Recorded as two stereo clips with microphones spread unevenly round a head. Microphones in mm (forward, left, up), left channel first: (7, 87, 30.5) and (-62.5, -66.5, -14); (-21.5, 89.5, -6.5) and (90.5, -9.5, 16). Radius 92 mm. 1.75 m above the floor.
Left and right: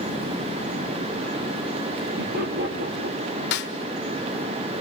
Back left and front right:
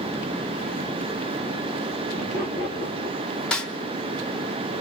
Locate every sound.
2.2 s laughter: 150° right, 5 m; by 3.4 s 135° right, 4 m
3.5 s a snare drum: 50° left, 1.6 m